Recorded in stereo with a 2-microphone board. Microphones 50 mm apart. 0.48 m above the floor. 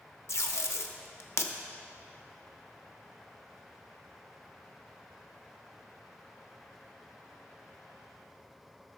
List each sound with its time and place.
0.3 s tape being pulled: 65° left (ahead or behind), 0.5 m